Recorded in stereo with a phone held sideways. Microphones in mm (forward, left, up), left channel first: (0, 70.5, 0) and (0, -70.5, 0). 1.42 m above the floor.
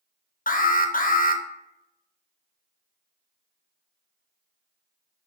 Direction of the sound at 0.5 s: 80° left.